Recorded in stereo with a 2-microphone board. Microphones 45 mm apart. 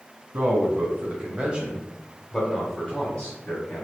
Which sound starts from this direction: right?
A man speaking, at 0.3 s.